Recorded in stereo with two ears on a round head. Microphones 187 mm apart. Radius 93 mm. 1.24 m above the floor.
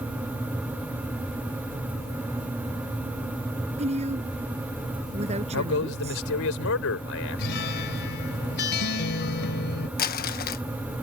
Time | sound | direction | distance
3.8 | a woman speaking | 30° right (ahead or behind) | ?
5.5 | a man speaking | 65° left (ahead or behind) | ?
7.4 | a guitar | 50° left (ahead or behind) | ?
10.0 | crumpling | 45° left (ahead or behind) | ?